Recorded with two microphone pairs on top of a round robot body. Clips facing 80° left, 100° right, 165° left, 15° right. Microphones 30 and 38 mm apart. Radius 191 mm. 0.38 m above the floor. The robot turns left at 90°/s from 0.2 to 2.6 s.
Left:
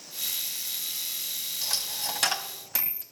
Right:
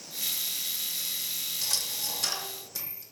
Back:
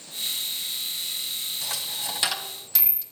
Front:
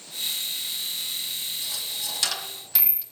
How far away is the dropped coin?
About 1.7 m.